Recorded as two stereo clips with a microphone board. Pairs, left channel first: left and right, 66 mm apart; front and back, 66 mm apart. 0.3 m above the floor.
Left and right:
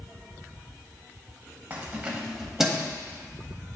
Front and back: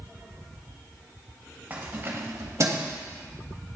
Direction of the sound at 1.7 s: 130° right.